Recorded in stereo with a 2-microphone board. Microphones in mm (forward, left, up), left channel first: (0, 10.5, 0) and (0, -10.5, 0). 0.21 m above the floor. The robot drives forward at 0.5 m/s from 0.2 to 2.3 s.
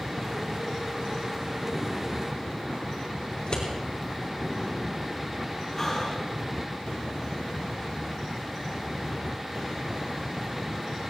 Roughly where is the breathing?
Left.